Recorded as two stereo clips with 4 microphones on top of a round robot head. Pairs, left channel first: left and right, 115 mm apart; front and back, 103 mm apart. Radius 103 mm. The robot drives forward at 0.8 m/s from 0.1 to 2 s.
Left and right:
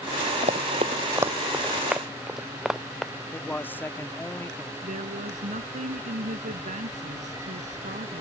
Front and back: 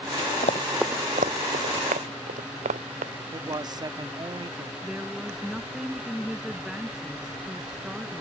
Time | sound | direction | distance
0.4 | running footsteps | 40° right | ?
3.2 | a man speaking | 155° left | ?
4.8 | a woman speaking | 95° right | ?